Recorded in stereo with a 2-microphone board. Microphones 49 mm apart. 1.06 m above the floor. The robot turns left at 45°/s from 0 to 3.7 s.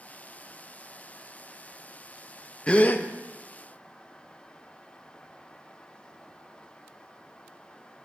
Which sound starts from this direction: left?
A gasp, at 2.7 s.